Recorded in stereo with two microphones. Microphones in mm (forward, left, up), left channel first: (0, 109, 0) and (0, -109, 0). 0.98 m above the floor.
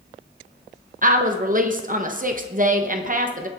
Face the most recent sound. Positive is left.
turn(degrees=-40)  # may be behind; listen again after turning